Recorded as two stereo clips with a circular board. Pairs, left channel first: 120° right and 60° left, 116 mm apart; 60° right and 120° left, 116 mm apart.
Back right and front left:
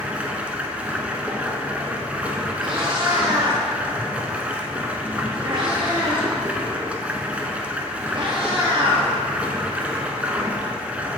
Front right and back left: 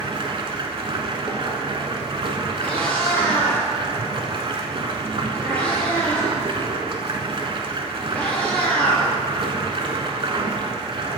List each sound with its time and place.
0.0 s running water: 135° left, 0.8 m
2.6 s a cat meowing: 15° left, 1.7 m